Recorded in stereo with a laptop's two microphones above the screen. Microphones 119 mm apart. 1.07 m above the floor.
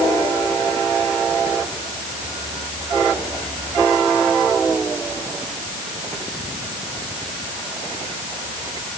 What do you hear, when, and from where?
Only background noise.